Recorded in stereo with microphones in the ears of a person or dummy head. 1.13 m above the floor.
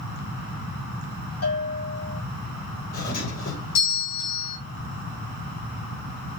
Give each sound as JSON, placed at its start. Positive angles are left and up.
{"t": 1.4, "sound": "a bell", "side_deg": 80, "distance_m": 3.5}
{"t": 2.9, "sound": "a doorbell", "side_deg": 70, "distance_m": 5.5}